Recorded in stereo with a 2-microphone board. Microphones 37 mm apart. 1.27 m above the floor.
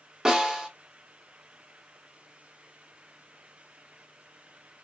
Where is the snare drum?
20° right (ahead or behind), 0.9 m.